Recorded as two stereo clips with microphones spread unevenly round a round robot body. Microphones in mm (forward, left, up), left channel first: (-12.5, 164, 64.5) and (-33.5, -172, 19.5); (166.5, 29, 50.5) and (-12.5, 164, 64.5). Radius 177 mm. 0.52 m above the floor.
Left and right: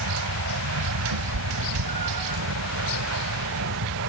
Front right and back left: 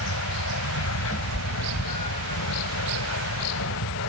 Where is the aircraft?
50° right; by 4.1 s 45° right.